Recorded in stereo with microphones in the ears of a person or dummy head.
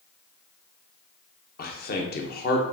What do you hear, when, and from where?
1.6 s a man speaking: 45° left (ahead or behind), 0.8 m